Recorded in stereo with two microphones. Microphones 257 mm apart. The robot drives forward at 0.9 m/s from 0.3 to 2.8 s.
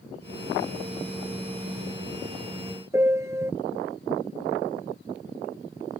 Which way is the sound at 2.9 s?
10° right (ahead or behind).